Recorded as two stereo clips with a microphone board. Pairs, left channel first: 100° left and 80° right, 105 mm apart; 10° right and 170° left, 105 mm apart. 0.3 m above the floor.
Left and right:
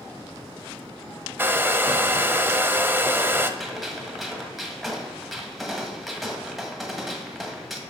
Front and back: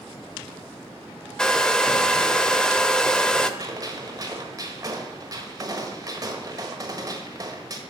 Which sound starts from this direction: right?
A hair dryer, at 1.4 s.